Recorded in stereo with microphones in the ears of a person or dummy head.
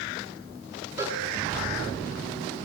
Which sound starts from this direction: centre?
A cowbell, at 1.0 s.